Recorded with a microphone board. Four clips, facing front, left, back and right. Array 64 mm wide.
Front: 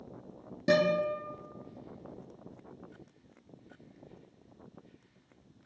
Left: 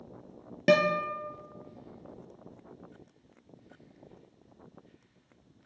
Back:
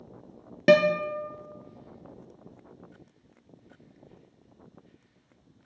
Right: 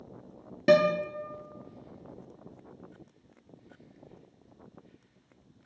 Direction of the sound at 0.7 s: 165° left.